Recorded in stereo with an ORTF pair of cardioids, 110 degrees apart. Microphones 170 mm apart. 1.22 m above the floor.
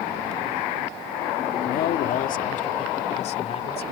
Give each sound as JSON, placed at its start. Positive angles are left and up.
{"t": 1.6, "sound": "a man speaking", "azimuth_deg": 60}